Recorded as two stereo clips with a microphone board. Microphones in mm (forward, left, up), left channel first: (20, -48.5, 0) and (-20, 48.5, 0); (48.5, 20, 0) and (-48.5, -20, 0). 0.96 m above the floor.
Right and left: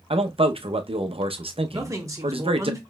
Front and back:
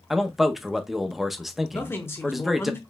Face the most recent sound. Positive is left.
turn(degrees=75)